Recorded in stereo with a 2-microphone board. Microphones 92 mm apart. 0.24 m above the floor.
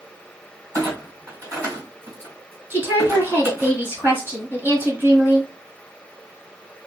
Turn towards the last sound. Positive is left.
turn(degrees=-25)  # may be behind; listen again after turning